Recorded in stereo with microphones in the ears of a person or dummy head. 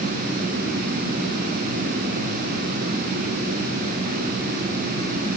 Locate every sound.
Only background noise.